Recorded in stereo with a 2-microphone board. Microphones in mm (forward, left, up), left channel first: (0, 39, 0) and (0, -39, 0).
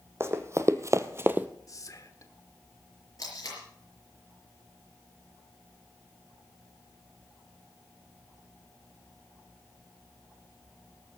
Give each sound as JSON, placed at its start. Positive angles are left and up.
{"t": 0.2, "sound": "running footsteps", "side_deg": -35, "distance_m": 1.2}
{"t": 1.7, "sound": "whispering", "side_deg": 45, "distance_m": 1.4}
{"t": 3.2, "sound": "tape being pulled", "side_deg": 45, "distance_m": 5.5}